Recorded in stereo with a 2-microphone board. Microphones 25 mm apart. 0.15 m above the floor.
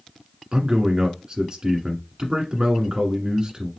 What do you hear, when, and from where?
0.5 s a man speaking: 40° right (ahead or behind), 1.5 m